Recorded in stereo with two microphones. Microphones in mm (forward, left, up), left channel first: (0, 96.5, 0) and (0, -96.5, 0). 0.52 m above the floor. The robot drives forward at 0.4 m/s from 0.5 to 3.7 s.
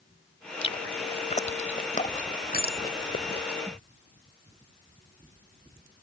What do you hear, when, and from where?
0.6 s chewing: 30° left (ahead or behind); by 3.5 s 55° left (ahead or behind)
2.5 s a bicycle bell: 50° left (ahead or behind)